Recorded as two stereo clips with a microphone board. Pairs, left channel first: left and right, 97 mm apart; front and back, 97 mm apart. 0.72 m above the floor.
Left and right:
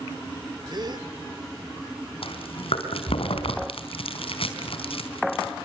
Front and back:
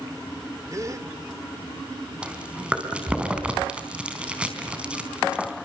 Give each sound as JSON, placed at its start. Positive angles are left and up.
{"t": 0.7, "sound": "a gasp", "azimuth_deg": -125, "distance_m": 2.0}
{"t": 2.2, "sound": "chewing", "azimuth_deg": 100, "distance_m": 3.5}